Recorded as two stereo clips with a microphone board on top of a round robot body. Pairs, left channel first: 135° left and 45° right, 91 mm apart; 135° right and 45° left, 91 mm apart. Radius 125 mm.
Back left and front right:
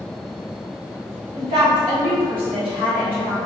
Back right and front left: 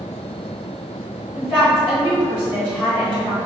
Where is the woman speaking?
65° right, 1.6 m.